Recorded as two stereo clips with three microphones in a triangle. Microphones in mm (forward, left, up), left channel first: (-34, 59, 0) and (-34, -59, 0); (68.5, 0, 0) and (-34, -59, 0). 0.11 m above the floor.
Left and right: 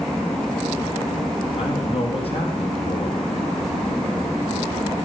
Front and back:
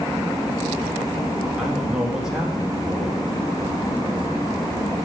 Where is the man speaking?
125° left, 4 m.